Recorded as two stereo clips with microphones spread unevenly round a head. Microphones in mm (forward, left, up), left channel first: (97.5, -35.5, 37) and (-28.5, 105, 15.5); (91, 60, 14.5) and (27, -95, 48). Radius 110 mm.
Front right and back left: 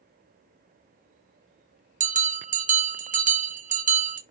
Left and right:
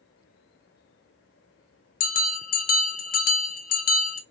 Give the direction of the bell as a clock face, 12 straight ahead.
9 o'clock.